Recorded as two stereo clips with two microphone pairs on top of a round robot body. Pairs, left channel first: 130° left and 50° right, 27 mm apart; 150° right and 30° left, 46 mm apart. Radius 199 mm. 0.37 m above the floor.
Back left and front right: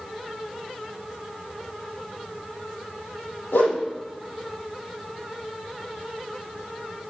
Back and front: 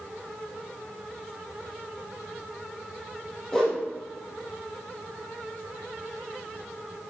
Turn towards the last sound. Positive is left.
turn(degrees=125)